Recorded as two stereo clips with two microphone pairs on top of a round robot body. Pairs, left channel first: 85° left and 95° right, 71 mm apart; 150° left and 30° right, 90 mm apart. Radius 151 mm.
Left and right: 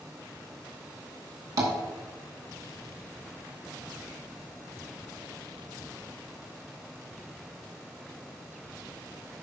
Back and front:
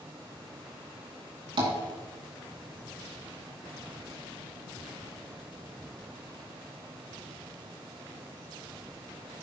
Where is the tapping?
60° right, 2.5 m.